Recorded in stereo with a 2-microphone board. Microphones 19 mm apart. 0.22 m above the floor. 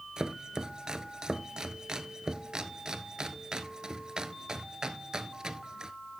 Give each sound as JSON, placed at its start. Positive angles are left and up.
{"t": 0.2, "sound": "chopping", "side_deg": -40, "distance_m": 0.8}